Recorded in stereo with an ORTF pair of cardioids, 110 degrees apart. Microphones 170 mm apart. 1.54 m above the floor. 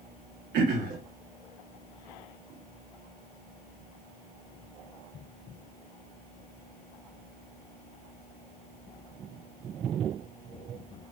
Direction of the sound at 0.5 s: 65° right.